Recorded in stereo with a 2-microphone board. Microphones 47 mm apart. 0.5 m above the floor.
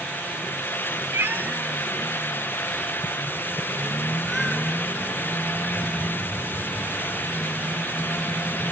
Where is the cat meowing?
65° right (ahead or behind), 0.6 m; by 8.7 s 5° left (ahead or behind), 6 m.